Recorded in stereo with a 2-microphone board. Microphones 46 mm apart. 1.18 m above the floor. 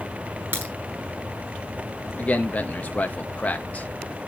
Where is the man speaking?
35° left (ahead or behind), 1.9 m.